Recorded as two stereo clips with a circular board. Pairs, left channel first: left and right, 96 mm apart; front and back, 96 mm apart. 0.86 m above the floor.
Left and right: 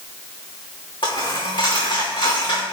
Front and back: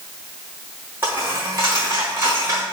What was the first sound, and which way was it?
A dropped coin, 120° left.